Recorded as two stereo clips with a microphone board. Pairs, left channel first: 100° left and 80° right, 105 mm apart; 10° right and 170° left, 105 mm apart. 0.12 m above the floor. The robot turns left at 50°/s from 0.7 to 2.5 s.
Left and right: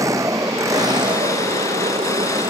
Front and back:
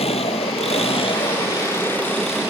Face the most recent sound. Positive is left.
turn(degrees=-110)